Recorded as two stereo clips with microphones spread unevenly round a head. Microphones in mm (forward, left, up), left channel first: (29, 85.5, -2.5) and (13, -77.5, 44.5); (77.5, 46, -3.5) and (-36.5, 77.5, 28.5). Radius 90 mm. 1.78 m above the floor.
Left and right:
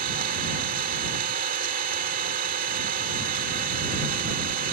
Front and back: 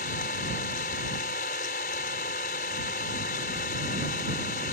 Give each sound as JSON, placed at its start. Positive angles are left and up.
{"t": 0.0, "sound": "an engine running", "azimuth_deg": -65}